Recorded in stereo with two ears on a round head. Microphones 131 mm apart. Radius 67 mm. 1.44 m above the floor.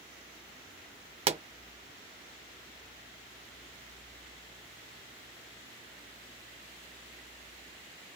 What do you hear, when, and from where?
1.3 s a pop: 40° right (ahead or behind), 0.7 m